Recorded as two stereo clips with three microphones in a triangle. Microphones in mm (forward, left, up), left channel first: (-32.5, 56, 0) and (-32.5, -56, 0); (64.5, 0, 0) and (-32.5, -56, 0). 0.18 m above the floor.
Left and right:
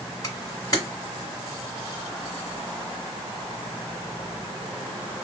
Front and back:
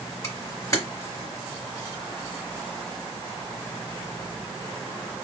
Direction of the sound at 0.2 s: 65° left.